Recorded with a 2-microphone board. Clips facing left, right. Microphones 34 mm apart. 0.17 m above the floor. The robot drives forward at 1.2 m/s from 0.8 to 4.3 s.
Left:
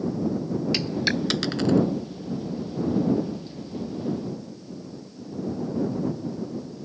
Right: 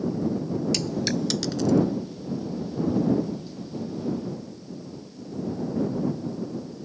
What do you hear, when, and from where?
0.7 s a dropped coin: 25° left (ahead or behind); by 1.8 s 50° left (ahead or behind)